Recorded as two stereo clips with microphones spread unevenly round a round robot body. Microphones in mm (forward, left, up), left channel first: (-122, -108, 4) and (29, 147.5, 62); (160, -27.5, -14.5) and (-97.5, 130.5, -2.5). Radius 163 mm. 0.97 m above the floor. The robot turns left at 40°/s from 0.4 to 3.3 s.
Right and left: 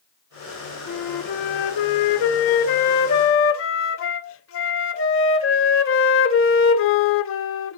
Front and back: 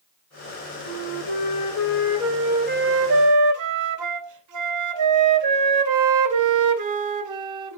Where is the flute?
75° right, 0.7 m; by 7.8 s 175° right, 0.7 m.